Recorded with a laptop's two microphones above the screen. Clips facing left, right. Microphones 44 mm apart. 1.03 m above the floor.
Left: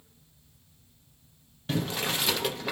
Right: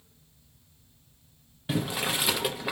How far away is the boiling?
About 0.5 m.